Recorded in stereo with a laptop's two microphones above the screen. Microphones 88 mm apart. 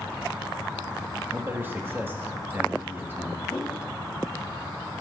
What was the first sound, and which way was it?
A man speaking, 25° right (ahead or behind).